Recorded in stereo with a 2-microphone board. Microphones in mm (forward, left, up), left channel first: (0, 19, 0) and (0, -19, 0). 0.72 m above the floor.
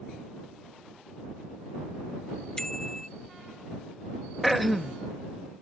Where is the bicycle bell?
15° left (ahead or behind).